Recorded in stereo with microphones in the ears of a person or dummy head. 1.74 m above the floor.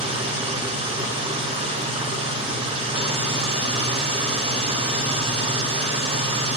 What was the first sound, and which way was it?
An engine running, 25° right (ahead or behind).